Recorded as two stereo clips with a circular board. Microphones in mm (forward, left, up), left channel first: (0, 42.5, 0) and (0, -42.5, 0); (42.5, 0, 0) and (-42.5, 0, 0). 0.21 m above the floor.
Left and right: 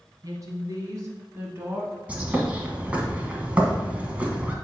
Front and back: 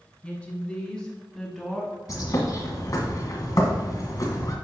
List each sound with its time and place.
0.2 s a woman speaking: 65° right, 2 m; by 2.0 s 90° right, 1.5 m
2.1 s a bird: 25° right, 1.3 m